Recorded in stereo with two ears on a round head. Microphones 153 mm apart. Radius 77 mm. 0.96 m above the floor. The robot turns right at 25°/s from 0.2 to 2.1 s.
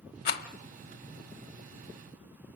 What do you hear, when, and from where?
0.2 s a rattle: 65° left (ahead or behind), 1.2 m